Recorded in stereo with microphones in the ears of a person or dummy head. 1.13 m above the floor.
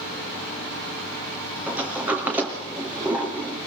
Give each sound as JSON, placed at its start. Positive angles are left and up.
{"t": 1.7, "sound": "a sliding door", "side_deg": -5, "distance_m": 3.0}